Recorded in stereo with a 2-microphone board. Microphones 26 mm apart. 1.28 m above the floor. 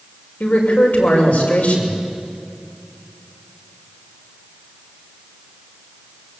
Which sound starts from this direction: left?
A man speaking, at 0.4 s.